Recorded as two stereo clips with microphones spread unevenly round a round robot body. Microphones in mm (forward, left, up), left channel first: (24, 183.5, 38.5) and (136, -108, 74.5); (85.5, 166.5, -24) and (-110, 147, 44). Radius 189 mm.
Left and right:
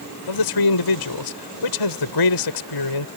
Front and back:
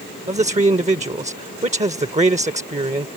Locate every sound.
0.3 s a man speaking: 125° left